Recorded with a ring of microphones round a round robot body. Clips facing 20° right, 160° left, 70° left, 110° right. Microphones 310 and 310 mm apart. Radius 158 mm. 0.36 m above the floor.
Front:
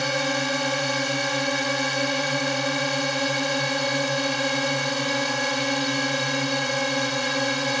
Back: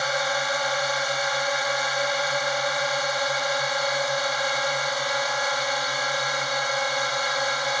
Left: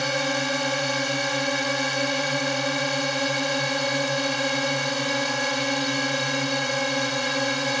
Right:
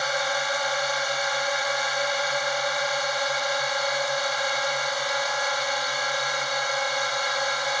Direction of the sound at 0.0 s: 20° left.